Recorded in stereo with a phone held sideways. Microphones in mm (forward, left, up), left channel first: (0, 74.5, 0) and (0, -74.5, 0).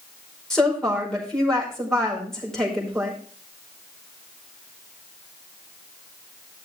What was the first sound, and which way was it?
A woman speaking, 5° left (ahead or behind).